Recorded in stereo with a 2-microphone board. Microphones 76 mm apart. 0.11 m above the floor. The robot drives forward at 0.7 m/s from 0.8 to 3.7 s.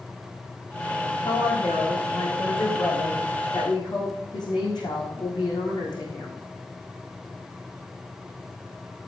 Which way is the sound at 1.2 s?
75° left (ahead or behind).